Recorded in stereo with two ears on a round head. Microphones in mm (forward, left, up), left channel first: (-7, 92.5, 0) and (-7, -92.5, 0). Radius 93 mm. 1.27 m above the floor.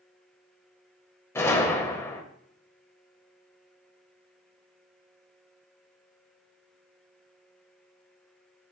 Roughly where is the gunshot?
Centre.